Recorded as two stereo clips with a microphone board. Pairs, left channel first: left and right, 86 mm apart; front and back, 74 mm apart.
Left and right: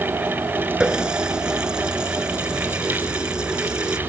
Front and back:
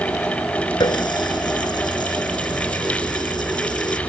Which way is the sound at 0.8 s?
10° right.